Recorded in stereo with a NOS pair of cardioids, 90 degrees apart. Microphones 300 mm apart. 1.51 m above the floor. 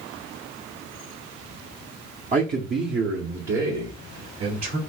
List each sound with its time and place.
2.3 s a man speaking: 25° right, 0.8 m; by 4.8 s 60° right, 2 m